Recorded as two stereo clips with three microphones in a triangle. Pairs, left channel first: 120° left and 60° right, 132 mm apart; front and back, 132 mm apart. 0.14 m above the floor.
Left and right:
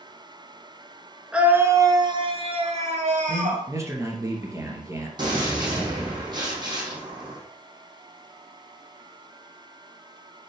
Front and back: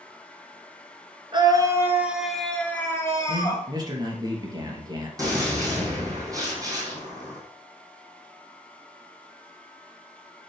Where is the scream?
140° right, 1.6 m; by 3.6 s 55° right, 2.5 m.